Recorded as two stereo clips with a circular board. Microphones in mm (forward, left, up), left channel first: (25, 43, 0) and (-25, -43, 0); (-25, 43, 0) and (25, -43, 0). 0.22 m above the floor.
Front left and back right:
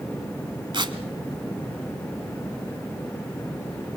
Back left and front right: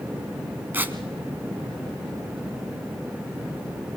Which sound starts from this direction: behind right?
Tearing paper, at 0.7 s.